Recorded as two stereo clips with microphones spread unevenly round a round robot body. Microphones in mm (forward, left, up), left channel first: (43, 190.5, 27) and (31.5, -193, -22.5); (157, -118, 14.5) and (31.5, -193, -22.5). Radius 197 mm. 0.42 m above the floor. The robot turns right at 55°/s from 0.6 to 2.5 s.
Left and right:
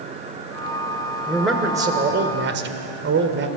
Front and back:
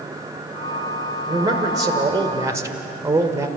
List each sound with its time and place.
1.3 s a man speaking: 175° left, 1.6 m; by 3.5 s 120° right, 1.6 m